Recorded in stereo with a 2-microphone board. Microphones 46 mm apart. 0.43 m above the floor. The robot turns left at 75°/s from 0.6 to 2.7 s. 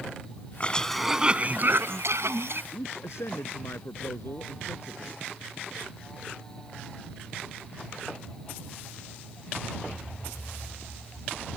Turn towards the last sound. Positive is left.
turn(degrees=75)  # may be behind; listen again after turning